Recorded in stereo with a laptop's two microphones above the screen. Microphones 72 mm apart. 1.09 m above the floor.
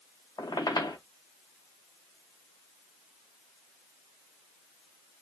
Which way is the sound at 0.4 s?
70° left (ahead or behind).